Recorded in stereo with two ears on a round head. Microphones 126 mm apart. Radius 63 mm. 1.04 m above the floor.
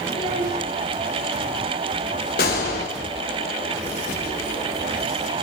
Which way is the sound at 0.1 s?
30° right (ahead or behind).